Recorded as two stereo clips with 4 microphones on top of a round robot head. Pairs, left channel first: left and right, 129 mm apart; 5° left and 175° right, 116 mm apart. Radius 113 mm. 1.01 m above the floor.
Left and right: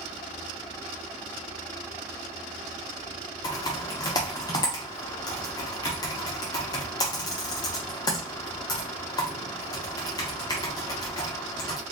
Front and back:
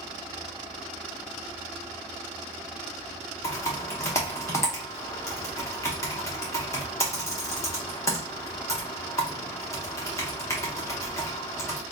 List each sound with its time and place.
3.4 s typing on a keyboard: 50° left, 0.6 m